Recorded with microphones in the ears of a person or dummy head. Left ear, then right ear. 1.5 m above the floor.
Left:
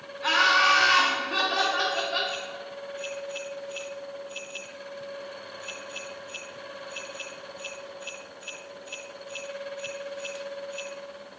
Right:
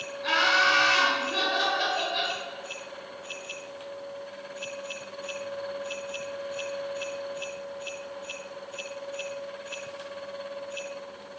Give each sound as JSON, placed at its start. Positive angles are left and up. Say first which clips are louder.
{"t": 0.2, "sound": "laughter", "louder": "left 2 dB", "side_deg": 50, "distance_m": 1.0}